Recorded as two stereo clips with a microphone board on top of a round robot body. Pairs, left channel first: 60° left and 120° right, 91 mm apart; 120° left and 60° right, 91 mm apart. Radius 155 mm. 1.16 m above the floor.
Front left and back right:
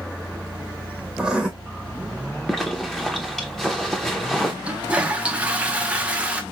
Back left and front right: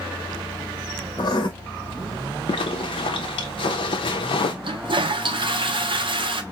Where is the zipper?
145° left, 0.6 m.